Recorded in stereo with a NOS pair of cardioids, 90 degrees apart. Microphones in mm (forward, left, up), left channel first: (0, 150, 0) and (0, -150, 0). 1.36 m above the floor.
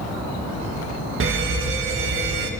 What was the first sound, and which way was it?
A fire alarm, 45° right.